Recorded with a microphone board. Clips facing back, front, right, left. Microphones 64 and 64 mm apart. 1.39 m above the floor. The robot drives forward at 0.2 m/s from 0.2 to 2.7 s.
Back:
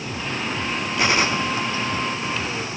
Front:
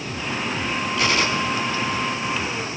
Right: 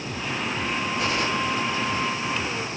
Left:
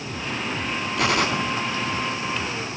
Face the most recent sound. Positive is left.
turn(degrees=125)